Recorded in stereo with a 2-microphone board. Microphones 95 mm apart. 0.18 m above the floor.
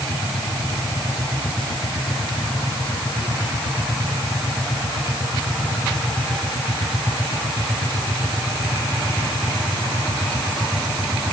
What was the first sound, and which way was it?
Only background noise.